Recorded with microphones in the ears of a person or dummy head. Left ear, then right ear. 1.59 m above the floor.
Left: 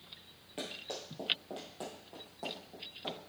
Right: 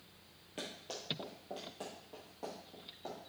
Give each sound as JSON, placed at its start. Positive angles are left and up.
{"t": 0.6, "sound": "running footsteps", "side_deg": 0, "distance_m": 1.8}